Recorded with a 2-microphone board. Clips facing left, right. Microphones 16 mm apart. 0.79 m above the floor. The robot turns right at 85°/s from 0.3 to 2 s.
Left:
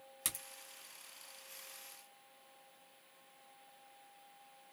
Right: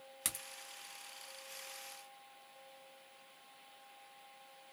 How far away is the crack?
About 1.3 m.